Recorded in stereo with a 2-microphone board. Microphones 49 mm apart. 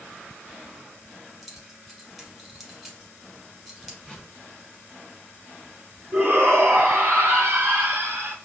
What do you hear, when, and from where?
1.4 s keys jangling: centre (ahead or behind), 1.0 m
4.0 s a whoosh: 10° left (ahead or behind), 1.5 m
6.1 s a shout: 55° right (ahead or behind), 2.5 m